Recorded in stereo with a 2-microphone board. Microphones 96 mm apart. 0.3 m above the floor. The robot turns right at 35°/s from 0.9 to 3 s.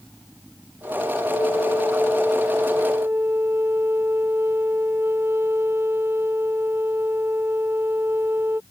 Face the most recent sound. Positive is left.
turn(degrees=-155)